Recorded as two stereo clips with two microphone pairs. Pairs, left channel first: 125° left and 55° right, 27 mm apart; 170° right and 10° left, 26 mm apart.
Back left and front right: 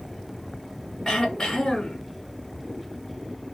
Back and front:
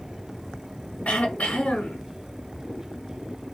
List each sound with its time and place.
1.1 s throat clearing: 175° right, 1.8 m